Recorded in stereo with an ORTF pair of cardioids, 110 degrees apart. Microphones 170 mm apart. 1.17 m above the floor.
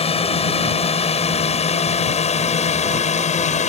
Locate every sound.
0.0 s a drone: 35° left; by 3.7 s 45° left